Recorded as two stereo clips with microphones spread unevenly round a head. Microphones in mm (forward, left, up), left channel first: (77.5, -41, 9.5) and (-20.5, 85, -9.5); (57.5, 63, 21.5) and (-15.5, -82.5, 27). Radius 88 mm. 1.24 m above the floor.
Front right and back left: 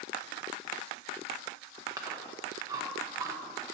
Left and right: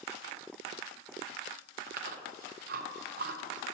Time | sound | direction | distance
1.9 | chewing | 160° right | 0.7 m